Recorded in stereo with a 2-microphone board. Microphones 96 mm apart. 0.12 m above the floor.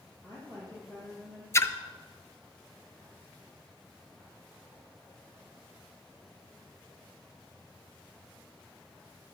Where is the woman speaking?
40° right (ahead or behind), 4 m; by 1.4 s 45° right (ahead or behind), 4.5 m.